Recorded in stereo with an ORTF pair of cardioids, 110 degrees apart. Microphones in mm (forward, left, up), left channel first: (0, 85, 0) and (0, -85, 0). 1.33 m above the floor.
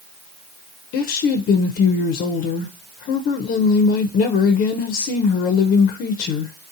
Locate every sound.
0.9 s a woman speaking: 65° left, 0.6 m